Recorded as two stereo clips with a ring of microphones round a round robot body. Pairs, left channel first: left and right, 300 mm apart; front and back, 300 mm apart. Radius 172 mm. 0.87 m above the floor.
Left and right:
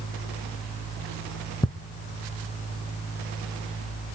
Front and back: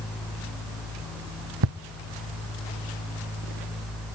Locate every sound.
1.6 s ticking: 170° left, 1.3 m